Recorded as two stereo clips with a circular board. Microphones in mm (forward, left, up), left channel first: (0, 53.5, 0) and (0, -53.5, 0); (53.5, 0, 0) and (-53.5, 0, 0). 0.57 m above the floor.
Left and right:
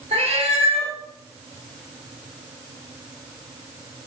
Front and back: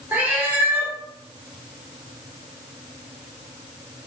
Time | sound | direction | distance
0.1 | a cat meowing | 105° right | 0.6 m